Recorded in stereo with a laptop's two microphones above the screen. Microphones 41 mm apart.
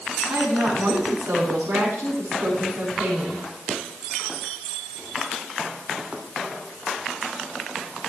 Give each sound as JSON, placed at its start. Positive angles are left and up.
{"t": 0.3, "sound": "a woman speaking", "side_deg": -65, "distance_m": 7.5}